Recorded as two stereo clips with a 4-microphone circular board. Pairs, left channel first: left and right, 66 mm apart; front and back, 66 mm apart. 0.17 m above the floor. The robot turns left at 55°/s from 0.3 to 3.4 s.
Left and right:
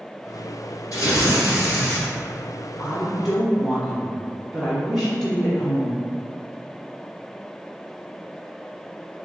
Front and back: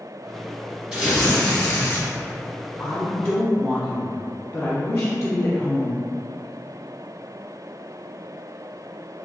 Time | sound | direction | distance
0.9 | tearing paper | 100° left | 1.7 m
2.8 | a woman speaking | 25° left | 1.2 m